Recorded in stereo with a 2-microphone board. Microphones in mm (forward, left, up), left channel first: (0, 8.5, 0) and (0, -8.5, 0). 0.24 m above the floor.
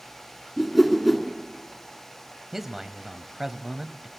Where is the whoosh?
5° left (ahead or behind), 2.5 m.